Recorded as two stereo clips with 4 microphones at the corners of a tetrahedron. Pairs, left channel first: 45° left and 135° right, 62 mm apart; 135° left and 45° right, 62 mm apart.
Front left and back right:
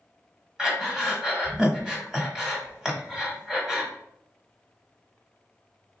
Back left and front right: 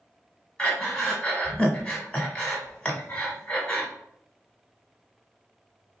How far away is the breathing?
About 1.1 m.